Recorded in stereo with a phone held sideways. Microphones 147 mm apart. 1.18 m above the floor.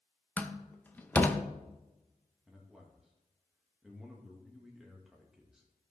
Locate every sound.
0.4 s a door slam: 10° left (ahead or behind), 0.7 m
2.5 s a man speaking: 5° right (ahead or behind), 1.7 m